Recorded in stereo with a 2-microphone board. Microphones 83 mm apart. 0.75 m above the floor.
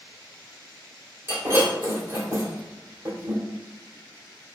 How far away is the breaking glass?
About 1.5 m.